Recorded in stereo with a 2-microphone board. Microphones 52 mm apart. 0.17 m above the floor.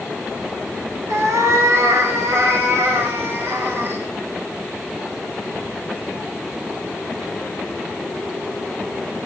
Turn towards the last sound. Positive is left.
turn(degrees=-50)  # may be behind; listen again after turning